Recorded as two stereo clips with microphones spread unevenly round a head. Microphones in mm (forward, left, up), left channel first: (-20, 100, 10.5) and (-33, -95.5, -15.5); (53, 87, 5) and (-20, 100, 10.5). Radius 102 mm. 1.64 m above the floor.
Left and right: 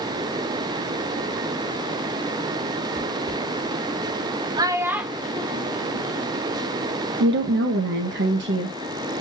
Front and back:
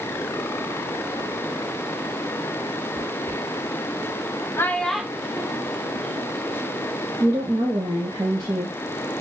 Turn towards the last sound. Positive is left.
turn(degrees=-130)